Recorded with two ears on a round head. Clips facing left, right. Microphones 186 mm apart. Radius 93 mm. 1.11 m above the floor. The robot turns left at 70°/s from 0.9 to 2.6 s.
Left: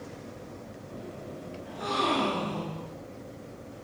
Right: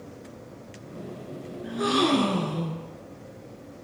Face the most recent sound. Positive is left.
turn(degrees=-150)